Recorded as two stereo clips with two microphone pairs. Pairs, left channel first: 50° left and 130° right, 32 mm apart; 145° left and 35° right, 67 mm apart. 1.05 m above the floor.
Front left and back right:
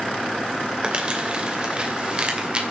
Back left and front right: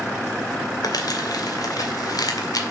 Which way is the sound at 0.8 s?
170° left.